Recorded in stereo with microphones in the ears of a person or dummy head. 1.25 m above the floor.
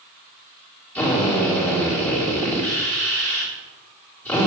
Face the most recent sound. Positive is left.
turn(degrees=20)  # may be behind; listen again after turning